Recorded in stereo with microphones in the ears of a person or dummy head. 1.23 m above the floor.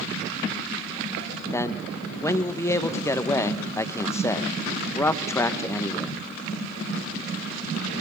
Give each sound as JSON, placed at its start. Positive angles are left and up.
{"t": 1.5, "sound": "a man speaking", "side_deg": 15, "distance_m": 1.4}